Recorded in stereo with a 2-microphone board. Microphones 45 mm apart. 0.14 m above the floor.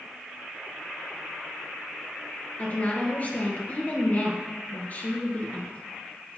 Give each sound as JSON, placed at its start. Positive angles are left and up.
{"t": 2.6, "sound": "a woman speaking", "side_deg": 40, "distance_m": 2.0}